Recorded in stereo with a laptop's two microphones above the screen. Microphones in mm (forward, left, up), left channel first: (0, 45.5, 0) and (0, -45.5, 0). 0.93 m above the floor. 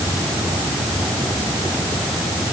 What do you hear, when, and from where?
Only background noise.